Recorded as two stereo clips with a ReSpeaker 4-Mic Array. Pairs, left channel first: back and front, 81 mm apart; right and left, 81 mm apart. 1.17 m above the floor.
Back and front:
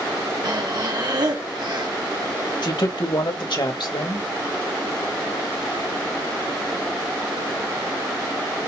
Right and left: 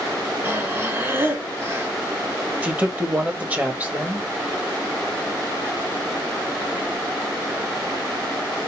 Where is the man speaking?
160° left, 2.5 m.